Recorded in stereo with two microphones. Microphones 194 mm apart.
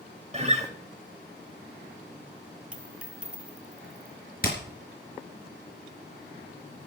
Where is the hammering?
50° left (ahead or behind), 4.5 m.